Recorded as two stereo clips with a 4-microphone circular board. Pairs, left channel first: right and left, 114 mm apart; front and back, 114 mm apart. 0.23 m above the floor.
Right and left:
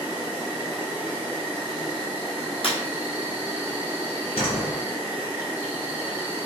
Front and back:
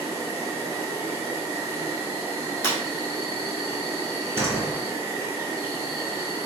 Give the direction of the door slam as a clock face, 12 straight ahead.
4 o'clock.